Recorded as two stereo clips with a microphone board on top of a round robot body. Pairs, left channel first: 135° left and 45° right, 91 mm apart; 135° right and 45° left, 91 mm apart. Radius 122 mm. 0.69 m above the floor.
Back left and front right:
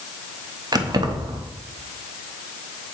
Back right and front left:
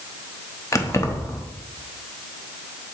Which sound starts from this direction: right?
Keys jangling, at 0.7 s.